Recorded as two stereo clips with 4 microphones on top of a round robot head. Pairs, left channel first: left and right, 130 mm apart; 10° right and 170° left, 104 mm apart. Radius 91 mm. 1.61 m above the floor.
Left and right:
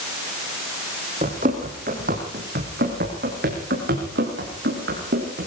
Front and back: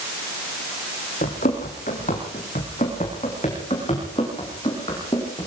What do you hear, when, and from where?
1.2 s running footsteps: 40° right, 4 m; by 5.5 s 75° right, 7 m